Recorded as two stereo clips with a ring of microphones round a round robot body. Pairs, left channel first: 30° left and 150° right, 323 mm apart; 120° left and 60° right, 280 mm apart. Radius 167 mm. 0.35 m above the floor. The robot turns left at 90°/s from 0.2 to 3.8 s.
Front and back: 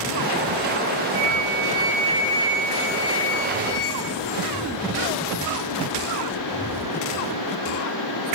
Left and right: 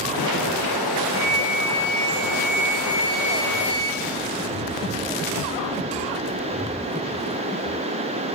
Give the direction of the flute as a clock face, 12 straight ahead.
4 o'clock.